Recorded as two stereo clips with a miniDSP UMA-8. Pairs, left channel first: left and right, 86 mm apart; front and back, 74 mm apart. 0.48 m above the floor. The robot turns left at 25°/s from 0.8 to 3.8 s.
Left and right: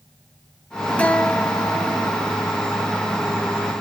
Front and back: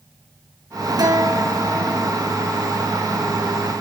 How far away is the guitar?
About 2.5 m.